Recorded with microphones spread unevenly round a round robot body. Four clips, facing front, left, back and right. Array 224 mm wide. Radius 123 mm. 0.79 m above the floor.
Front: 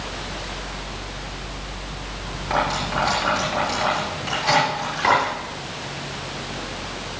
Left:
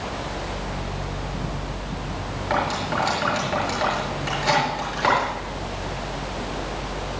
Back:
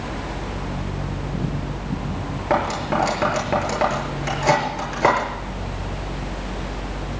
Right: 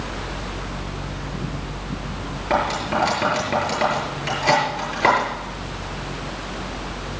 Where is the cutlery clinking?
155° right, 7.5 m.